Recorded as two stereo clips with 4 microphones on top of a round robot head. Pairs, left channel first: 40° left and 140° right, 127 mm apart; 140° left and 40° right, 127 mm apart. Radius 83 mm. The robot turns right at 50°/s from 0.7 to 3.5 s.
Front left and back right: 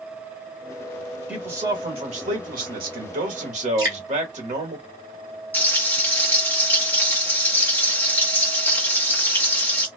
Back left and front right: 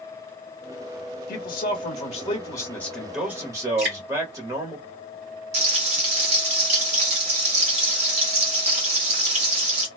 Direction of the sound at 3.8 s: 80° right.